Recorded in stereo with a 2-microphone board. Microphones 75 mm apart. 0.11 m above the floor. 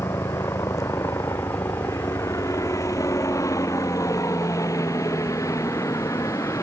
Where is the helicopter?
45° left (ahead or behind).